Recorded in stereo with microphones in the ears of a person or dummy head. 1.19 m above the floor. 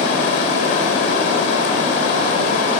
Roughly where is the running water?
Left.